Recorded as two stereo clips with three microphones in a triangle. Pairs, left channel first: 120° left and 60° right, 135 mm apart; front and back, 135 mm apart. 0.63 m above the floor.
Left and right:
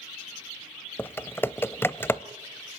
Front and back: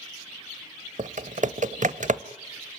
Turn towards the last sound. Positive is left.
turn(degrees=-170)